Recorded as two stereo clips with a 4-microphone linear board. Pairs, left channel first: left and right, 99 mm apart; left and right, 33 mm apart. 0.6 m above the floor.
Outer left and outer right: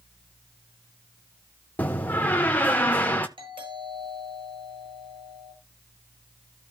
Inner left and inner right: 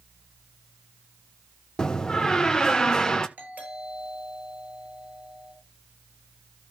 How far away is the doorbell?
About 8.5 m.